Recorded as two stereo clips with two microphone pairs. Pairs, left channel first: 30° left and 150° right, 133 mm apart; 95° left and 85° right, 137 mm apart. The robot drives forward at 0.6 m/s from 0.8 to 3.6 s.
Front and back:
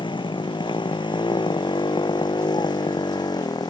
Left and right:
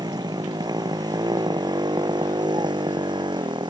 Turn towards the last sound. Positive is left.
turn(degrees=-30)